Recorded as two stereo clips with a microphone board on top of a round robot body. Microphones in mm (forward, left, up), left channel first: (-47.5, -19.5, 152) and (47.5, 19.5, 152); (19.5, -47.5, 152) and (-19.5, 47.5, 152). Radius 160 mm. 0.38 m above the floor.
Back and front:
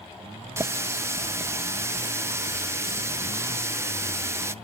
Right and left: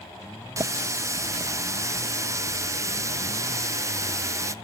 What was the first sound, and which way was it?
A running tap, 70° left.